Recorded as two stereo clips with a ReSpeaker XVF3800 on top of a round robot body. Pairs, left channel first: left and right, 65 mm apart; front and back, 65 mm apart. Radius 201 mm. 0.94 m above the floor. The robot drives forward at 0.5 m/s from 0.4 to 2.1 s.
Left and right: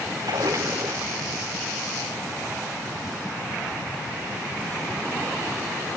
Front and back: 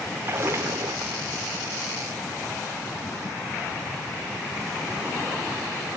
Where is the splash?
130° right, 0.6 m; by 1.2 s 155° right, 0.9 m.